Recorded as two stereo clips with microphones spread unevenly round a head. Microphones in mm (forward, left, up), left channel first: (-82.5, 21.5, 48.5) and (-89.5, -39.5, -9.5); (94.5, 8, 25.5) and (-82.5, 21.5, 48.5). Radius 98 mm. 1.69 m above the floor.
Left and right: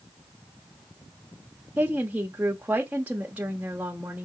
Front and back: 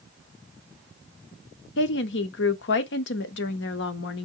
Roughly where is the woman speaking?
Ahead right.